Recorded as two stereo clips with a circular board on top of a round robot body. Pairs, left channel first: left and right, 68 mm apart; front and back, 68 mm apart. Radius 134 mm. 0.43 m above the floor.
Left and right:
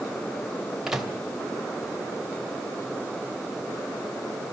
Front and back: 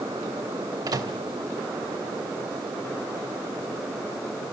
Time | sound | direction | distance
0.9 | a microwave | 175° right | 3 m